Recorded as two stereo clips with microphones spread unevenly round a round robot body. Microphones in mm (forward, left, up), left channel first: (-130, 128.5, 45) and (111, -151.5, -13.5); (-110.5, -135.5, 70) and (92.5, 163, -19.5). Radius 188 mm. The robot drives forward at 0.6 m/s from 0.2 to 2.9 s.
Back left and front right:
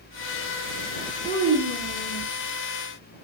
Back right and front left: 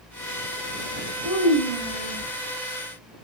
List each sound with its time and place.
1.2 s a child speaking: 120° right, 2.5 m; by 2.3 s 130° right, 3 m